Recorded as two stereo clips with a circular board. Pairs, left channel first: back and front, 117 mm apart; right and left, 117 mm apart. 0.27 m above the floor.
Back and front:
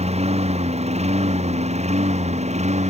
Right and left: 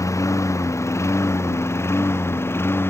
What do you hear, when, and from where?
0.0 s a lawn mower: 25° right; by 2.9 s 20° right